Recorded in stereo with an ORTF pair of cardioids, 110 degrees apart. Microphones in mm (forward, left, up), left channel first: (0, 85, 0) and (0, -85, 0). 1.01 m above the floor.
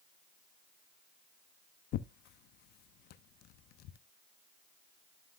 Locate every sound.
1.9 s tearing paper: 70° left, 0.8 m